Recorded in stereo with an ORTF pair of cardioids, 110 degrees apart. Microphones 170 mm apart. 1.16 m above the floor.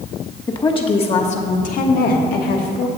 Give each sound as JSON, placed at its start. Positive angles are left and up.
{"t": 0.5, "sound": "a woman speaking", "azimuth_deg": 25, "distance_m": 1.4}